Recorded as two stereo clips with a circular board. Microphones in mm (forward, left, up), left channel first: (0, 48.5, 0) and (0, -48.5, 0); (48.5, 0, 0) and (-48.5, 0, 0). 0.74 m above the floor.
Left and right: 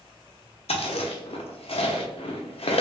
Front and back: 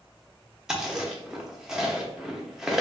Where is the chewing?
95° left, 0.5 m.